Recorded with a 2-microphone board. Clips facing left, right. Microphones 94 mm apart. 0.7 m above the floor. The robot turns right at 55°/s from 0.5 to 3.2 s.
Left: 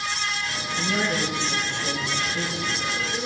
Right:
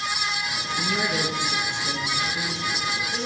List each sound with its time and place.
0.8 s a man speaking: 60° left, 3.5 m; by 3.3 s 165° right, 3.5 m